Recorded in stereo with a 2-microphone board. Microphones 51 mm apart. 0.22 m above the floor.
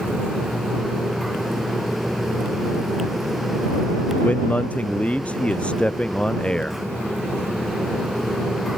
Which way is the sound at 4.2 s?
30° left (ahead or behind).